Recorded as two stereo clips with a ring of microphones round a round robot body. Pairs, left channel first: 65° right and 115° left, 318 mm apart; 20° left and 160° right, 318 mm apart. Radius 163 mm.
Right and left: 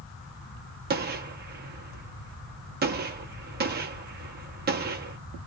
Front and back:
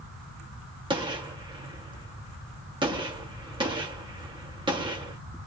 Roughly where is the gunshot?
Behind left.